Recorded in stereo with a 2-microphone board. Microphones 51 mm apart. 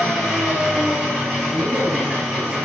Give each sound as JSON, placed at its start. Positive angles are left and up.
{"t": 0.0, "sound": "an engine running", "side_deg": -20, "distance_m": 1.9}
{"t": 1.5, "sound": "a man speaking", "side_deg": -40, "distance_m": 2.0}